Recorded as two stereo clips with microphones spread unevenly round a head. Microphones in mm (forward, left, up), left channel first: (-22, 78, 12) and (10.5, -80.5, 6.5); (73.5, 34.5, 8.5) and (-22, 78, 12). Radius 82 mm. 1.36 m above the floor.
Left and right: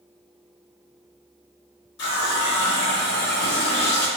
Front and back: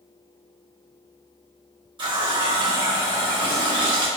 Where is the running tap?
115° left, 0.8 m.